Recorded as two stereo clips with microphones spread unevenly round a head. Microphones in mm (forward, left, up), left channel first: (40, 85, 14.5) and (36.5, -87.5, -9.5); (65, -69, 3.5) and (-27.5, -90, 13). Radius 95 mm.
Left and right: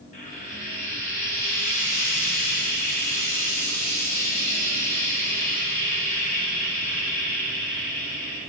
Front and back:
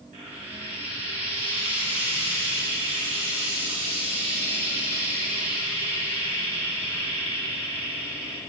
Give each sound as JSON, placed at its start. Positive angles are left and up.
{"t": 0.1, "sound": "frying", "azimuth_deg": 145, "distance_m": 1.6}